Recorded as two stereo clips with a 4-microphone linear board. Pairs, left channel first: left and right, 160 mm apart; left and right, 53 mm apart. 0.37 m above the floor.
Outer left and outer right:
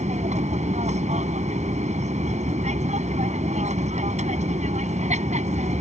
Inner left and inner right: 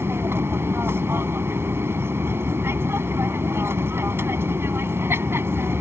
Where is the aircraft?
45° right (ahead or behind).